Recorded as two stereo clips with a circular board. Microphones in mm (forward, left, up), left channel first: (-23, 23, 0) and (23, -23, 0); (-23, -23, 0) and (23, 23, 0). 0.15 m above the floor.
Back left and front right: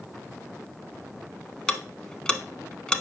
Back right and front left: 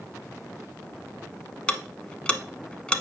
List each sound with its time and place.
1.7 s ticking: 175° right, 0.6 m